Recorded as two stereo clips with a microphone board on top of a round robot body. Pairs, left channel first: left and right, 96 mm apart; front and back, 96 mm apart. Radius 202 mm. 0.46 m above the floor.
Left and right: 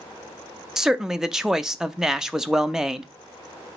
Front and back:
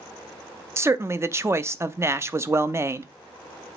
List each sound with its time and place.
0.8 s a man speaking: 170° right, 0.7 m